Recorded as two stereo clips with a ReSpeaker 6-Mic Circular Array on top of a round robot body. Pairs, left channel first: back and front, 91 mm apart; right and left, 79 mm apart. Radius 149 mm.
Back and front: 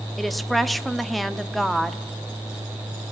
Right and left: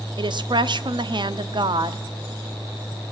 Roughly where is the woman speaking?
Left.